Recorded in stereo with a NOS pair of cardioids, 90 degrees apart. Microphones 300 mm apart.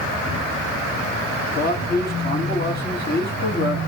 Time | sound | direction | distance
1.6 | a man speaking | 30° left | 0.9 m